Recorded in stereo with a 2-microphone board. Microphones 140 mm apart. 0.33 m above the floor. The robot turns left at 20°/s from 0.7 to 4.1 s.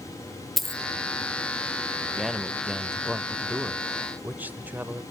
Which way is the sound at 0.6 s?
Centre (ahead or behind).